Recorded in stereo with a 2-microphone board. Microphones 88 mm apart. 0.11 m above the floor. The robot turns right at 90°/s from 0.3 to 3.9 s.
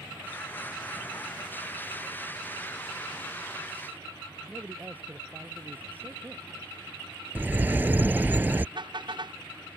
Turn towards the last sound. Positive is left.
turn(degrees=-60)  # may be behind; listen again after turning